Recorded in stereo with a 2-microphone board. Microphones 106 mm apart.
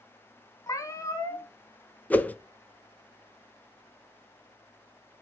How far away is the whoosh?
About 0.6 m.